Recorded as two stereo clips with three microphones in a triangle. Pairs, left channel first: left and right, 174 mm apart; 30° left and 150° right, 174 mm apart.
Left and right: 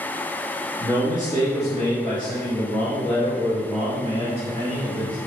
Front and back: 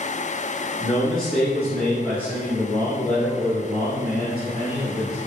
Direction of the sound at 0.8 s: 65° right.